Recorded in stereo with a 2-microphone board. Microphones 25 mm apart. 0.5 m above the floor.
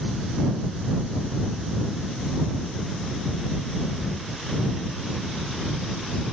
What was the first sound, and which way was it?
Only background noise.